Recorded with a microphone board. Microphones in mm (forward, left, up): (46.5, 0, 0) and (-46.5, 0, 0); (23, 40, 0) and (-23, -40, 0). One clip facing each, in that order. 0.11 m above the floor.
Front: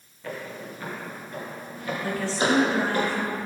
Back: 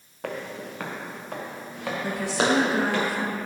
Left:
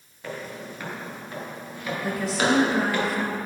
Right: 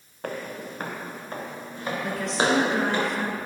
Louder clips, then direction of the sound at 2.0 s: Back 1 dB, left 1 dB; 140° left.